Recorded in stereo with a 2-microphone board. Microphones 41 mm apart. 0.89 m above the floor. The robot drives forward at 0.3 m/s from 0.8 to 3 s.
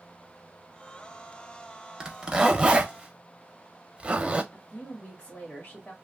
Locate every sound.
2.0 s a zipper: 15° right (ahead or behind), 0.7 m; by 4.4 s 25° right (ahead or behind), 0.5 m
4.5 s a woman speaking: 40° left (ahead or behind), 1.2 m